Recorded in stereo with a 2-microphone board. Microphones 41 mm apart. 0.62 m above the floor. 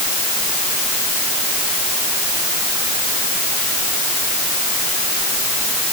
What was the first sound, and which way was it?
Only background noise.